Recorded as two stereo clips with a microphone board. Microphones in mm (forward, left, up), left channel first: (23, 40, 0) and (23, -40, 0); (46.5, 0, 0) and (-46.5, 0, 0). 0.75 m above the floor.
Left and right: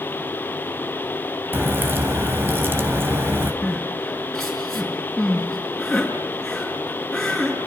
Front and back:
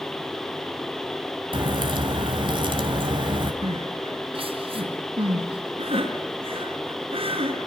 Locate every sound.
1.5 s a crack: 155° right, 3 m
3.6 s crying: 175° left, 5.5 m